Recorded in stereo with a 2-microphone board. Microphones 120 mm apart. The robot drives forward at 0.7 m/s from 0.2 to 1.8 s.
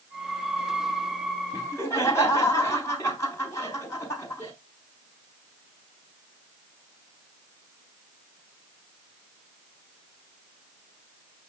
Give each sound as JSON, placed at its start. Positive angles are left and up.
{"t": 1.5, "sound": "laughter", "side_deg": 25, "distance_m": 3.0}